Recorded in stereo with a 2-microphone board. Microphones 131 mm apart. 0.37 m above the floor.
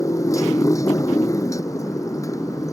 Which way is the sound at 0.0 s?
25° left (ahead or behind).